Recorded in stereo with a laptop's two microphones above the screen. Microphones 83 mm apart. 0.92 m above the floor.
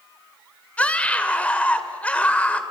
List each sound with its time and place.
0.8 s a scream: 15° left (ahead or behind), 3 m